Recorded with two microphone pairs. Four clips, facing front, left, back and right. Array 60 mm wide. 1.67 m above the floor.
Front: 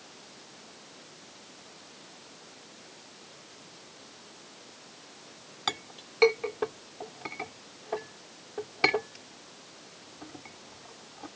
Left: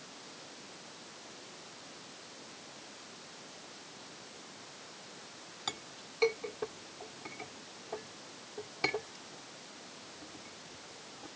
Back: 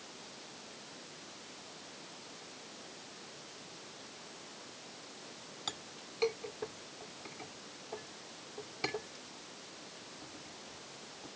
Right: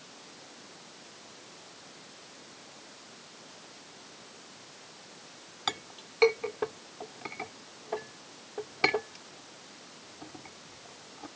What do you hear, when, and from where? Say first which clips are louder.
5.7 s a clink: right 7 dB, front 12 dB; 40° right